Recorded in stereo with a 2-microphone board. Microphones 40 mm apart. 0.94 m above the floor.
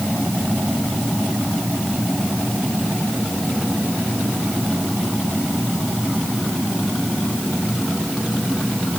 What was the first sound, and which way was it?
Only background noise.